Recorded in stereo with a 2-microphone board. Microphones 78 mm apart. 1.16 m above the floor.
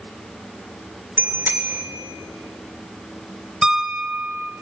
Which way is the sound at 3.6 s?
10° right (ahead or behind).